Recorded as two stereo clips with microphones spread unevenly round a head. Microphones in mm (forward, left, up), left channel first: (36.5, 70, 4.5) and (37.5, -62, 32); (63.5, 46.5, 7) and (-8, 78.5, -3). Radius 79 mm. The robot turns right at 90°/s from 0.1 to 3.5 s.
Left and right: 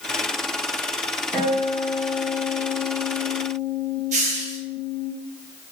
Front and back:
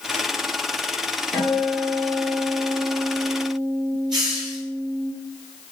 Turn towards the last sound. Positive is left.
turn(degrees=-135)